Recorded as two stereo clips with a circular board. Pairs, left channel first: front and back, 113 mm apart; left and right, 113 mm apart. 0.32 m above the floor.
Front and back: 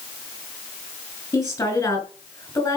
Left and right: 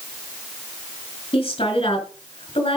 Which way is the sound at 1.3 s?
65° left.